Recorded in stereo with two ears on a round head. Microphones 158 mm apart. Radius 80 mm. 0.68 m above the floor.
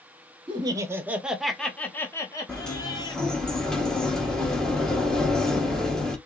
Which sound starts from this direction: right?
Laughter, at 0.5 s.